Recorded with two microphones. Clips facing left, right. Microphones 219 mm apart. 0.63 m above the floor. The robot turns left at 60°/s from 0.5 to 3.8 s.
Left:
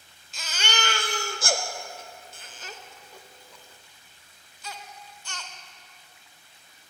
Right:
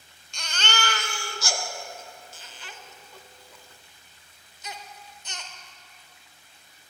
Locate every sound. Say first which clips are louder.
0.3 s a baby crying: even; 5° left (ahead or behind), 0.7 m; by 5.5 s 20° right (ahead or behind), 0.7 m